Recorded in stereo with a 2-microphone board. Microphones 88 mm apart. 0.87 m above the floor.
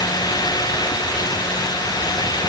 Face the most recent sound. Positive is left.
No sound to turn to.